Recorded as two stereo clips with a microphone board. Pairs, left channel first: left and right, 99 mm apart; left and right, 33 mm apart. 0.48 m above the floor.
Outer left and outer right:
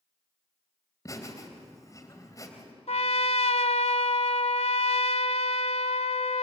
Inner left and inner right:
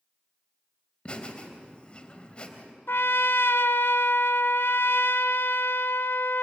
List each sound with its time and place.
1.1 s laughter: 30° left (ahead or behind), 3 m
2.9 s a trumpet: 80° left, 0.9 m